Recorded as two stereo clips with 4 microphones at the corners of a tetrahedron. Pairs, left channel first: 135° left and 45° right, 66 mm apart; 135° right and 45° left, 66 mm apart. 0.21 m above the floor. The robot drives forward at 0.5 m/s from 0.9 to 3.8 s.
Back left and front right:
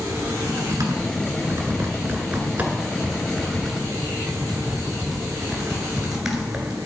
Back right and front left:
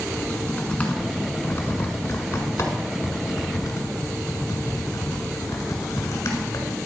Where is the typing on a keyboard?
70° right, 1.6 m; by 6.8 s 125° right, 1.8 m.